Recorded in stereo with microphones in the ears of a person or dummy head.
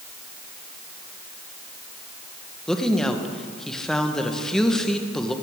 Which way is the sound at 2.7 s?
5° left (ahead or behind).